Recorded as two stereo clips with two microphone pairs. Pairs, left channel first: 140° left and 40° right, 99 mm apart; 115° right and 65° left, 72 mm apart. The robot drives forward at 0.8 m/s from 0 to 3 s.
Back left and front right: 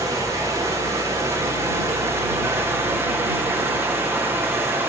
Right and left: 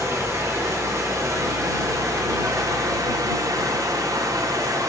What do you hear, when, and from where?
0.0 s running water: 15° left, 6.5 m; by 4.9 s 25° left, 4 m